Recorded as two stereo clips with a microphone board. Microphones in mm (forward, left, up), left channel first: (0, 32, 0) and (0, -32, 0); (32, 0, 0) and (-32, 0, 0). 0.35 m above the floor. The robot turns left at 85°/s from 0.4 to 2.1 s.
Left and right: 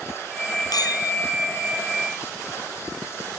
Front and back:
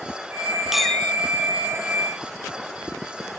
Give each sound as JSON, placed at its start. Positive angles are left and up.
{"t": 0.7, "sound": "a clink", "azimuth_deg": 95}